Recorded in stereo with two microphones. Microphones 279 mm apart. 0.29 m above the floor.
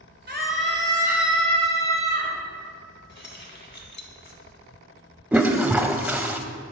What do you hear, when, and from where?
0.3 s a scream: 40° right (ahead or behind), 1.3 m; by 2.3 s 15° left (ahead or behind), 3 m
3.1 s keys jangling: 40° left (ahead or behind), 1.0 m
5.3 s a toilet flushing: 5° right (ahead or behind), 0.5 m